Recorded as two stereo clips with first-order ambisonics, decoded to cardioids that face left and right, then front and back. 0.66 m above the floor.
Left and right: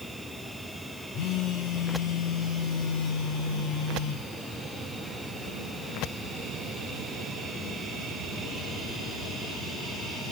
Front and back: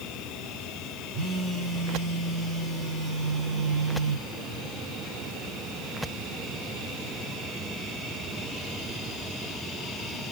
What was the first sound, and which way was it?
A phone buzzing, 120° left.